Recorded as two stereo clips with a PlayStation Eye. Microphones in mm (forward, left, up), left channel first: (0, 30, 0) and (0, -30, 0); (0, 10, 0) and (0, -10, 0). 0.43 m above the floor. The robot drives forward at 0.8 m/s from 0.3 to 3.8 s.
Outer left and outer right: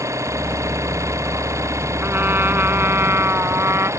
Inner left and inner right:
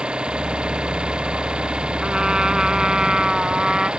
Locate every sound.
0.0 s an engine running: 55° right (ahead or behind); by 4.0 s 50° right (ahead or behind)
2.0 s a trumpet: 35° right (ahead or behind); by 3.9 s 45° right (ahead or behind)